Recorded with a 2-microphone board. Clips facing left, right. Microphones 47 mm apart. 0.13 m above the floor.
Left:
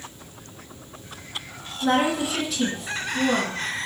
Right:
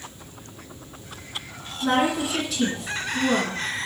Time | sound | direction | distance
1.8 | a woman speaking | centre (ahead or behind) | 1.2 m